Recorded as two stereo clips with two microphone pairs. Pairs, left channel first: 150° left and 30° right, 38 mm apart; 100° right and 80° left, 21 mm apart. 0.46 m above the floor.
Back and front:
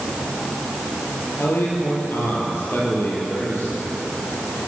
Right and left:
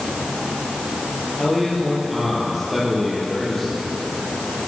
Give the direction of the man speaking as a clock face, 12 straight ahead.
6 o'clock.